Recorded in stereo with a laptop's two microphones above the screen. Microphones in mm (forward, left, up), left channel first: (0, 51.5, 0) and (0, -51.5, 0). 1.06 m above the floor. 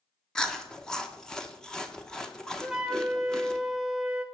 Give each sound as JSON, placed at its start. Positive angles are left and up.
{"t": 0.3, "sound": "chewing", "side_deg": 5, "distance_m": 1.0}
{"t": 2.6, "sound": "a flute", "side_deg": -5, "distance_m": 0.9}